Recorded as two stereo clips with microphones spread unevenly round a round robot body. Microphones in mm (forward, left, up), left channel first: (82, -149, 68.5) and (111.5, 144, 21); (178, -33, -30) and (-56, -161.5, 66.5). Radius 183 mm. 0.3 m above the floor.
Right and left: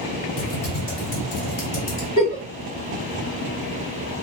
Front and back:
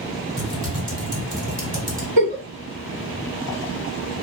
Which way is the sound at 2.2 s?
160° right.